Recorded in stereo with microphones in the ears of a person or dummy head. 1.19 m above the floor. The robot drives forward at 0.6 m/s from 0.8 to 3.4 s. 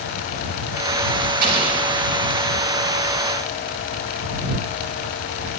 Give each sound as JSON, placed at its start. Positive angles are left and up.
{"t": 1.4, "sound": "an explosion", "side_deg": -60, "distance_m": 4.5}